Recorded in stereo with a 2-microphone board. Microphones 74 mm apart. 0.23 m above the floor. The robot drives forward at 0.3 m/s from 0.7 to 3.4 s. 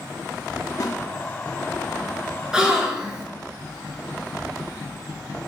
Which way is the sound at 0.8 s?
55° left (ahead or behind).